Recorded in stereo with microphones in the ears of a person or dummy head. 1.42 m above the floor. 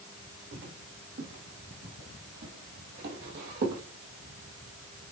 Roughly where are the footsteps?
Right.